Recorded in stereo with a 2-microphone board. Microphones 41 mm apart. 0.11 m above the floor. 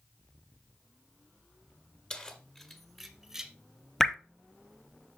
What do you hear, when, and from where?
2.1 s keys jangling: 25° left (ahead or behind), 1.2 m; by 3.5 s 10° right (ahead or behind), 1.1 m
4.0 s dripping: 10° left (ahead or behind), 0.7 m